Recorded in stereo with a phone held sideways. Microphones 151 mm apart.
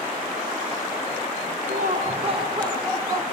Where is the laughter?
75° right (ahead or behind), 0.9 m; by 3.2 s 20° right (ahead or behind), 2.5 m.